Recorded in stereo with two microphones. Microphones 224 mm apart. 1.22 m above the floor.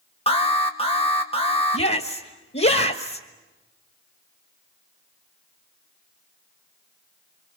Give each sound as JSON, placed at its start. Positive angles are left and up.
{"t": 0.3, "sound": "an alarm", "side_deg": 25, "distance_m": 2.5}
{"t": 1.7, "sound": "a shout", "side_deg": 55, "distance_m": 1.5}